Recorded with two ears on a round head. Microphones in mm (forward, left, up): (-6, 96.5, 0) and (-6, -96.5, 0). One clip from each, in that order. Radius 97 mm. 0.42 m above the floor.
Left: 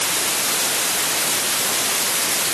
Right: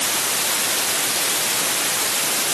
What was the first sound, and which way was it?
Only background noise.